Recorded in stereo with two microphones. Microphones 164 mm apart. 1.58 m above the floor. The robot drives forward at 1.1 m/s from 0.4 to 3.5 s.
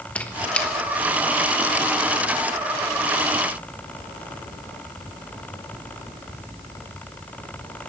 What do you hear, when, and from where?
0.1 s a squeak: 10° left (ahead or behind), 1.2 m; by 0.7 s 5° left (ahead or behind), 1.5 m